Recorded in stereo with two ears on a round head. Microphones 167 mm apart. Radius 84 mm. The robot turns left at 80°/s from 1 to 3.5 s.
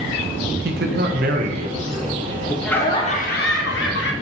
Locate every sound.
0.7 s a man speaking: 90° right, 0.7 m; by 2.5 s 145° left, 0.7 m
2.6 s laughter: straight behind, 1.1 m; by 4.1 s 110° left, 1.1 m